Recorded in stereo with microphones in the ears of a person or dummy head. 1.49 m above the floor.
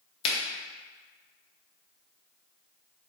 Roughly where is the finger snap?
Left.